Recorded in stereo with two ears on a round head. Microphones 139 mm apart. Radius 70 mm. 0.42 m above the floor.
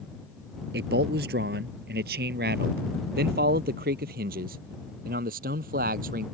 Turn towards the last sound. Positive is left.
turn(degrees=-55)  # may be behind; listen again after turning